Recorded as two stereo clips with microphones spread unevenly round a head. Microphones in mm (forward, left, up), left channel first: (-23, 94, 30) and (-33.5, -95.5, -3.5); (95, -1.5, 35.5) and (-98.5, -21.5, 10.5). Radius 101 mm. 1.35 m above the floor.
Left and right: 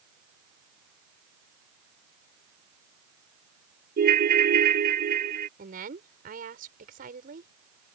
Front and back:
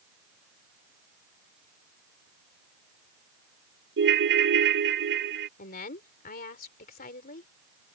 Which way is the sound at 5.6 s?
40° right.